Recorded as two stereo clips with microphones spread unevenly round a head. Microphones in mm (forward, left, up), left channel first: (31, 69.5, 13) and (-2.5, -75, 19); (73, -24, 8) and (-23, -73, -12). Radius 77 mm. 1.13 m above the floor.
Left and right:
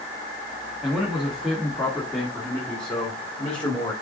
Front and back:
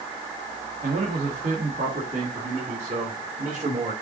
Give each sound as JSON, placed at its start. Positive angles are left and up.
{"t": 0.8, "sound": "a man speaking", "azimuth_deg": 170, "distance_m": 1.7}